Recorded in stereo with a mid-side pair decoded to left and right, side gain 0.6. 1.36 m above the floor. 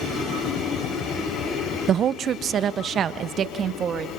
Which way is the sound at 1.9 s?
45° right.